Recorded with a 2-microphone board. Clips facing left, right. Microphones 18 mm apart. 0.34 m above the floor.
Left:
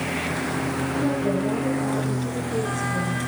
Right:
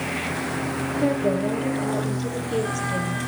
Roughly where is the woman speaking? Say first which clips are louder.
Right 3 dB; right.